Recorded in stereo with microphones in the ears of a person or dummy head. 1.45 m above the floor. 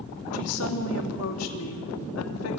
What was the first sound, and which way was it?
A woman speaking, 80° left.